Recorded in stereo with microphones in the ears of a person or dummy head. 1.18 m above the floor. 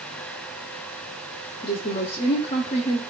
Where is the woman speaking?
30° left (ahead or behind), 0.5 m.